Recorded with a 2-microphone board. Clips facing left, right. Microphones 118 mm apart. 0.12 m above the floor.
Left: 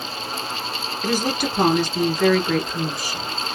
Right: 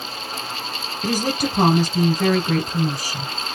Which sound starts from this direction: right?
A woman speaking, at 1.0 s.